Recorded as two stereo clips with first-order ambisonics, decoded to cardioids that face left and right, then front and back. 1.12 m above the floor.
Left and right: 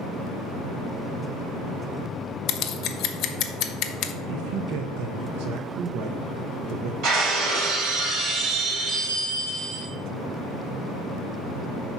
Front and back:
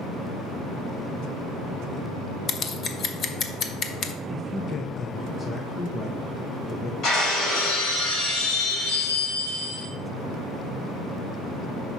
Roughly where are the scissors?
Ahead left.